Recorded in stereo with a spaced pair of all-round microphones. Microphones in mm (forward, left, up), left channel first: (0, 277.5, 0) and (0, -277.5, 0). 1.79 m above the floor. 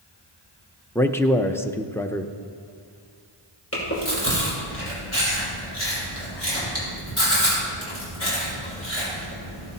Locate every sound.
0.9 s a man speaking: 5° left (ahead or behind), 0.6 m
3.7 s chewing: 25° left (ahead or behind), 5 m